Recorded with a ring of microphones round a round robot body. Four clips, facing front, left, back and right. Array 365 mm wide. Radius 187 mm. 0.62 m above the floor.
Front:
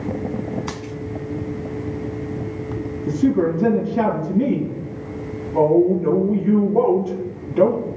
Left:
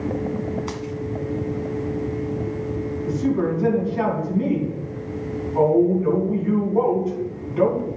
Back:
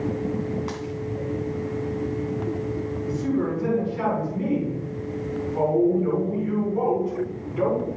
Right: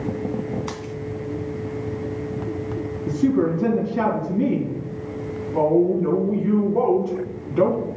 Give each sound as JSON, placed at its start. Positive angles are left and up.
{"t": 0.7, "sound": "a dropped coin", "azimuth_deg": -5, "distance_m": 3.0}
{"t": 3.1, "sound": "a woman speaking", "azimuth_deg": -25, "distance_m": 5.5}